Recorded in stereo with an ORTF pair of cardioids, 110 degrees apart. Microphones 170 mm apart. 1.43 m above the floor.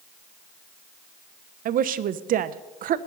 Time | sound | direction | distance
1.6 | a woman speaking | 55° right | 0.8 m